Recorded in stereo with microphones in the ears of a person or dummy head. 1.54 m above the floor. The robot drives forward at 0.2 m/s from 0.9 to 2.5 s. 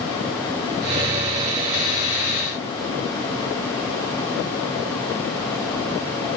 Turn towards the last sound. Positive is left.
No sound to turn to.